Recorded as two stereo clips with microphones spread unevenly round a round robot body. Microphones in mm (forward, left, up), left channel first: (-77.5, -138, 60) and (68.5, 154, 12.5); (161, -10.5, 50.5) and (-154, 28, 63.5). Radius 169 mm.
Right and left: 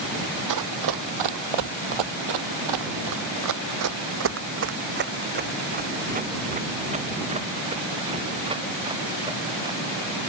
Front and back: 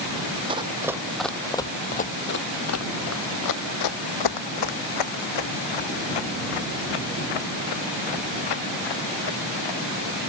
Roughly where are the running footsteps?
Left.